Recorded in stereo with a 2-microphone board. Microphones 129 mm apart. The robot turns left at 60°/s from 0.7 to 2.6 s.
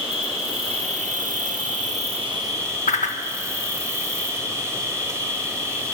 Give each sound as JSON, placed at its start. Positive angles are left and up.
{"t": 0.0, "sound": "an insect", "azimuth_deg": -45, "distance_m": 1.1}
{"t": 2.9, "sound": "a whoosh", "side_deg": 65, "distance_m": 0.6}